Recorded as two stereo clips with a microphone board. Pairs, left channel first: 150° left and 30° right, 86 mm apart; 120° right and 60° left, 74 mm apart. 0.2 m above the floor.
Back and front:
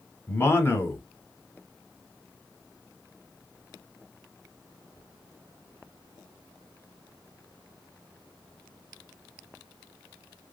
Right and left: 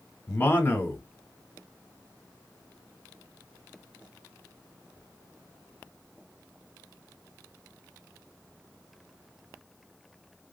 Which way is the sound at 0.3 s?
165° right.